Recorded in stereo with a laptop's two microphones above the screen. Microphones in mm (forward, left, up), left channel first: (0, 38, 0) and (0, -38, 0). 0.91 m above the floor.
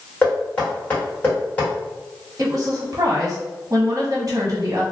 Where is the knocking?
15° left (ahead or behind), 1.3 m.